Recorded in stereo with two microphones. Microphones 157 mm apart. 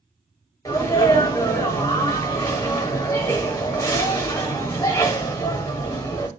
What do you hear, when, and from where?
0.7 s a sneeze: 20° left (ahead or behind), 1.0 m